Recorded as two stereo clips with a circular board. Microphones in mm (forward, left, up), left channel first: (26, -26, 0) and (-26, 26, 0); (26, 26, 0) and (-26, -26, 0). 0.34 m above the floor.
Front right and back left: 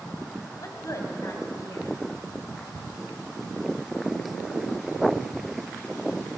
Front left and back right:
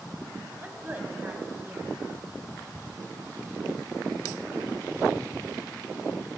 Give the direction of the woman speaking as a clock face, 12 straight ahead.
2 o'clock.